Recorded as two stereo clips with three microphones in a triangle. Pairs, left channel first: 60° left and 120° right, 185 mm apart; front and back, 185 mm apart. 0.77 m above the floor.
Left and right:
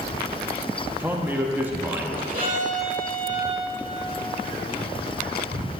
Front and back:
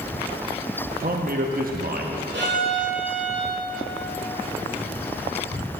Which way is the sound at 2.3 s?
160° right.